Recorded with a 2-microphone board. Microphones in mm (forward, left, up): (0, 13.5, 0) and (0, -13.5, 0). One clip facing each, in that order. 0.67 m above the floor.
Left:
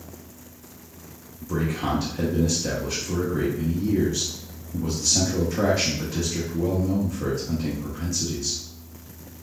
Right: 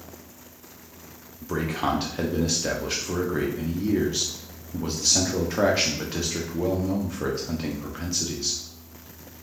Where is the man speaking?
40° right (ahead or behind), 0.8 m.